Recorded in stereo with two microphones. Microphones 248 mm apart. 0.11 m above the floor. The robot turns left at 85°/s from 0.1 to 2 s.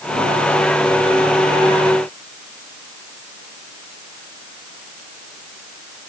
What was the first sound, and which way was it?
Only background noise.